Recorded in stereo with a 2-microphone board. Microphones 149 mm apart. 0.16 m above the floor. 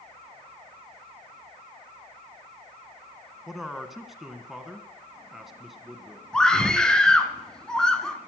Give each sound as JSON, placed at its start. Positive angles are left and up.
{"t": 3.5, "sound": "a man speaking", "side_deg": 0, "distance_m": 1.5}
{"t": 6.3, "sound": "a scream", "side_deg": 5, "distance_m": 1.7}